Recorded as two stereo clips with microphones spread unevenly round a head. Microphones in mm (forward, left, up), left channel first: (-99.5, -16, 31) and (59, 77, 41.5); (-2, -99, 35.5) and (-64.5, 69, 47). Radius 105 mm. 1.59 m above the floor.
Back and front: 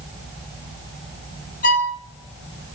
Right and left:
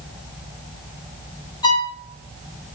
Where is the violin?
130° right, 1.1 m.